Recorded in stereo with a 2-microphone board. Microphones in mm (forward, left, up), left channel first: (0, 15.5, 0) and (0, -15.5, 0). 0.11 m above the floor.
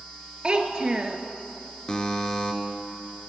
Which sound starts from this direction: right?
A child speaking, at 0.4 s.